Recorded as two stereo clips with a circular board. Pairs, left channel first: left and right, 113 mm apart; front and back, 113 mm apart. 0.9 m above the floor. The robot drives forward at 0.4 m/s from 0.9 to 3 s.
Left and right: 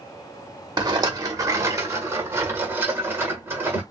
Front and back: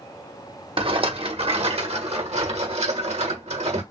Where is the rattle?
140° right, 1.0 m; by 3.8 s 160° right, 1.7 m.